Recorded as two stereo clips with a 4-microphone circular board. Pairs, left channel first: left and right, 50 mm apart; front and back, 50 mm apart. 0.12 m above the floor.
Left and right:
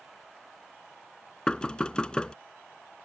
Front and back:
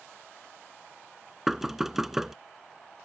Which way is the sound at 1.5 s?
110° left.